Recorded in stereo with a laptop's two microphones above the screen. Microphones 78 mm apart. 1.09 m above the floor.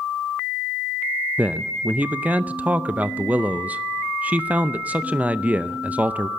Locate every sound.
1.4 s a man speaking: 20° right (ahead or behind), 0.6 m